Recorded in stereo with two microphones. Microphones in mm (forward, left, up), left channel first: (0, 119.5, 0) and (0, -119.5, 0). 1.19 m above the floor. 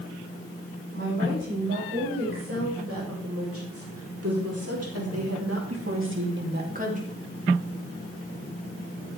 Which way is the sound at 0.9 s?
50° right (ahead or behind).